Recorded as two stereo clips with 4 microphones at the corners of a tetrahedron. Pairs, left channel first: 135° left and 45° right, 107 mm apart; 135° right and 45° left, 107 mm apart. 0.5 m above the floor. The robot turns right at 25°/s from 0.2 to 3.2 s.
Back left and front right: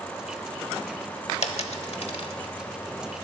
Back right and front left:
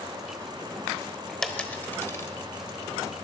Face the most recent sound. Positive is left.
turn(degrees=-175)